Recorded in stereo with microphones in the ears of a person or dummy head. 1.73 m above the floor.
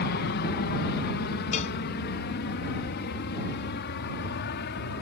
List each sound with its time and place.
0.0 s an aircraft: 50° left (ahead or behind); by 5.0 s 55° left (ahead or behind)
1.5 s a cowbell: 35° left (ahead or behind)